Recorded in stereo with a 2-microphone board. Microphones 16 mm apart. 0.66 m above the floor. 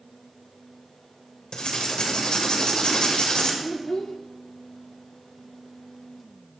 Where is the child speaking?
35° left (ahead or behind), 0.6 m.